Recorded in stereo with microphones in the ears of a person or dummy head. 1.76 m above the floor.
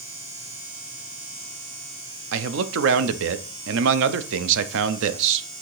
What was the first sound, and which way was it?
A man speaking, 70° right (ahead or behind).